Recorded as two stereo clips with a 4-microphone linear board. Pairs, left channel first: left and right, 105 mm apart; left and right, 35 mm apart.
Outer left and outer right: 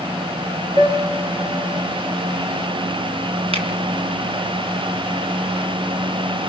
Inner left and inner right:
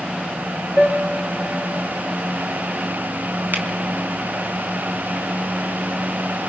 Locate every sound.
0.8 s a piano: 65° right (ahead or behind), 6 m
3.5 s a finger snap: 65° right (ahead or behind), 4 m